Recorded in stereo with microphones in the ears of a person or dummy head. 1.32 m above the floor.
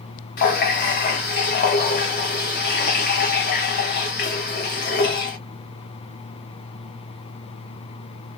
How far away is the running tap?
About 0.6 m.